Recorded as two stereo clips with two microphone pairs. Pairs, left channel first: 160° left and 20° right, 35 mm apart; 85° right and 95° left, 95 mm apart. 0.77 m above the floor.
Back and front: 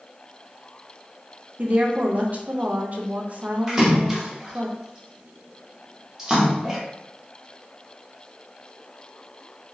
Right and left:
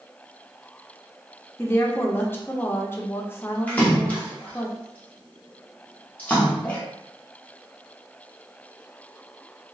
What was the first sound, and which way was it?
A woman speaking, 25° right.